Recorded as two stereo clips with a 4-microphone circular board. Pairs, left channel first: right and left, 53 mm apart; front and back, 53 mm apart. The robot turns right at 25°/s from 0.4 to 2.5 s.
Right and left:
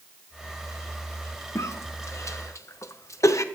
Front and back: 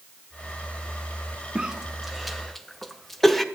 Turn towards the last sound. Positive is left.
turn(degrees=-85)